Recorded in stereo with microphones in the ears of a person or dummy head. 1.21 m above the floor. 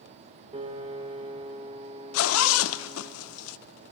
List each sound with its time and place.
0.5 s a piano: 30° right (ahead or behind), 1.2 m
2.1 s a zipper: 85° left, 0.5 m